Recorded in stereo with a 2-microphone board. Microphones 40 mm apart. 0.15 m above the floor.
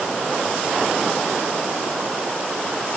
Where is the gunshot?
I don't hear a gunshot.